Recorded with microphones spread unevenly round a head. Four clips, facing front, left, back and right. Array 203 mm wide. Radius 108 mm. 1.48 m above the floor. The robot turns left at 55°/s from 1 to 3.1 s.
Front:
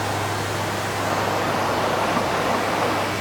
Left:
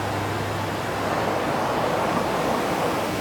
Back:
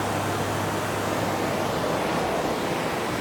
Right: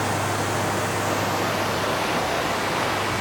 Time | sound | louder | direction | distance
0.0 | running water | right 2 dB, front 1 dB | 130° right | 0.7 m